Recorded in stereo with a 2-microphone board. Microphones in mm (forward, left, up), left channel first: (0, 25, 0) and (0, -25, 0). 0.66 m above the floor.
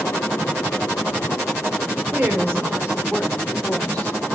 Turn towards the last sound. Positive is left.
turn(degrees=20)  # may be behind; listen again after turning